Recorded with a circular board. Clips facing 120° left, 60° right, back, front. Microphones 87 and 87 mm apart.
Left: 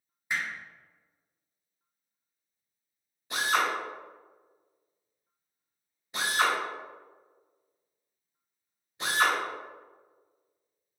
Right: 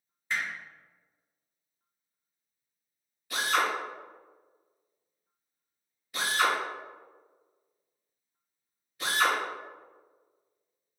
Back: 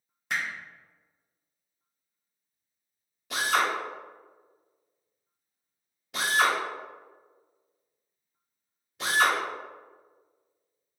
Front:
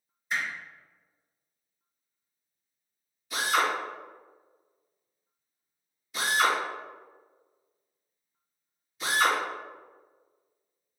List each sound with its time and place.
0.3 s hammering: 165° right, 1.0 m
3.3 s a drill: 175° right, 1.7 m